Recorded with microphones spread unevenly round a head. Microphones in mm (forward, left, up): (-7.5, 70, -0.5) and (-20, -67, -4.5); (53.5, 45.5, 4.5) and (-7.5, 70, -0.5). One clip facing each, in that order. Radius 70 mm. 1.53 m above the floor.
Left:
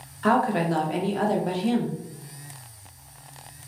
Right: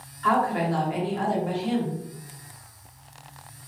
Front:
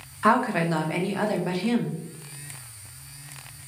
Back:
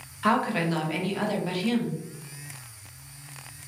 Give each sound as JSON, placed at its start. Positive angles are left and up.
{"t": 0.2, "sound": "a woman speaking", "azimuth_deg": 45, "distance_m": 0.6}